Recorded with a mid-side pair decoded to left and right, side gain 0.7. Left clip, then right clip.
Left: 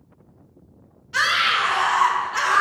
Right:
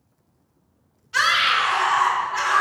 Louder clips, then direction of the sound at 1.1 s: Right 1 dB; 10° left.